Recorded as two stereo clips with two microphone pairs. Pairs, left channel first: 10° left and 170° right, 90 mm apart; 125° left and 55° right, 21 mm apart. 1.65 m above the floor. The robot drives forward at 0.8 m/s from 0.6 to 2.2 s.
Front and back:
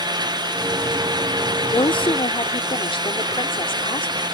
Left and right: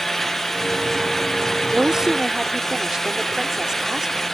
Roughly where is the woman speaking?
Ahead.